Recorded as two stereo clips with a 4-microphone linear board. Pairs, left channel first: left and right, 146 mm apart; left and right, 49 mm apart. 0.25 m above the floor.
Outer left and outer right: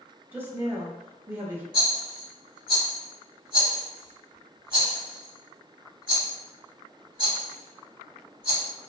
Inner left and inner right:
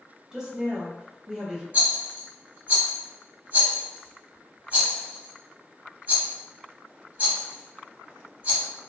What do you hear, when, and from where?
0.3 s a woman speaking: 15° right (ahead or behind), 1.0 m
1.7 s a rattle: 35° right (ahead or behind), 1.6 m